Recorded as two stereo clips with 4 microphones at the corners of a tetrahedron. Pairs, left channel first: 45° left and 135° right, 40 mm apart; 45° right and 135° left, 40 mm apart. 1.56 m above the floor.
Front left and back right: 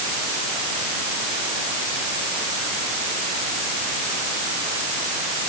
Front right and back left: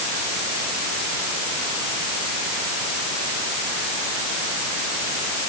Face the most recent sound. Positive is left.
No sound to turn to.